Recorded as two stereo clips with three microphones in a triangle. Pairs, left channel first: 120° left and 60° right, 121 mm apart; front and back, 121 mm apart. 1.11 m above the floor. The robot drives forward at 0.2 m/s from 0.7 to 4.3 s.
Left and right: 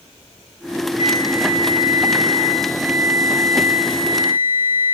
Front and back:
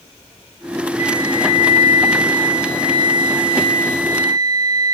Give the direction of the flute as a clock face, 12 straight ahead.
8 o'clock.